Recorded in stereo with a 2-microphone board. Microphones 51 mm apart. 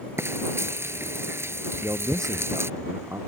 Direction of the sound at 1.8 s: 80° right.